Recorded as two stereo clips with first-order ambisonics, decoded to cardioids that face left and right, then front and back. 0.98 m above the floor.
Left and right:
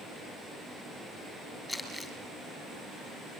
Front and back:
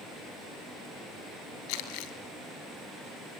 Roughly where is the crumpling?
Ahead.